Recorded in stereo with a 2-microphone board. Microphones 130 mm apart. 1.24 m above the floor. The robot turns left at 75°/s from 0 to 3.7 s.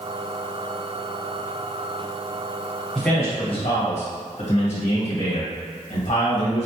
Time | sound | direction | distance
3.0 | a man speaking | straight behind | 1.1 m